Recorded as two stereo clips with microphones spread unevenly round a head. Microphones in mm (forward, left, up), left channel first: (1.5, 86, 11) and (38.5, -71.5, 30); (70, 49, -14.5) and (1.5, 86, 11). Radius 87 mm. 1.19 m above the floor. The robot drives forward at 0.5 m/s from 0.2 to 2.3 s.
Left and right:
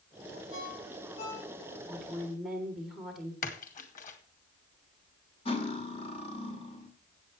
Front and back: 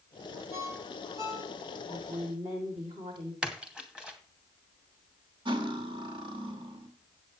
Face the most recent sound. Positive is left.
turn(degrees=165)